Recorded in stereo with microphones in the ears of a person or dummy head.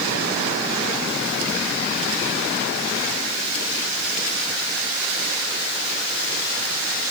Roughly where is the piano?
I don't hear a piano.